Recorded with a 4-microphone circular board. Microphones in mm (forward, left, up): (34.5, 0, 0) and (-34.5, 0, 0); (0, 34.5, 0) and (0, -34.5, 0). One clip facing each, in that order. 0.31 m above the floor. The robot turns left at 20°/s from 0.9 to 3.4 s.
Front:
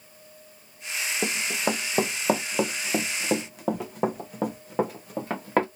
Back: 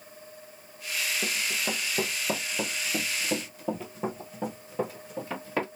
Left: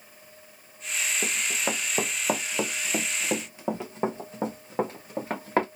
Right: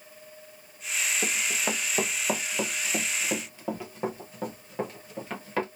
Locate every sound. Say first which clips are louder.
1.2 s running footsteps: front 4 dB, left 1 dB; 5° left, 1.0 m; by 5.7 s 40° left, 2 m